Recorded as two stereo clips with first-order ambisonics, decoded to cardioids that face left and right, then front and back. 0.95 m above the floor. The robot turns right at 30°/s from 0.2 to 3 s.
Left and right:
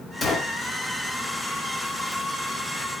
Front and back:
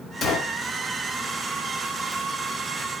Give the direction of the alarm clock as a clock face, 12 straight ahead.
I don't hear an alarm clock.